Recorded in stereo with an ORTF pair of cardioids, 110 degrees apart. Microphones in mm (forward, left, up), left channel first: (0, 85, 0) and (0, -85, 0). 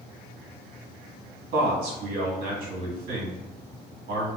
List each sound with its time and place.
1.5 s a man speaking: 60° right, 1.3 m